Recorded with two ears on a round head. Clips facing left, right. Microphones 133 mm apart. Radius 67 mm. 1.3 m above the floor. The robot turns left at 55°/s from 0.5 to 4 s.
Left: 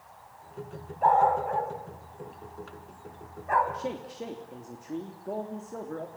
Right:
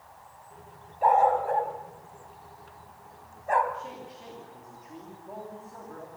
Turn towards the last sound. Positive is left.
turn(degrees=50)  # may be behind; listen again after turning